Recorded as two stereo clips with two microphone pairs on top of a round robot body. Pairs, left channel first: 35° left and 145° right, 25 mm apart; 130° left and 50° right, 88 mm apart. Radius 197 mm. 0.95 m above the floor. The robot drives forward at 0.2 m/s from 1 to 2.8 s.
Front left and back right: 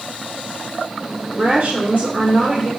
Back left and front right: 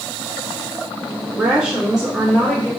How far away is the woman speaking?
About 1.6 m.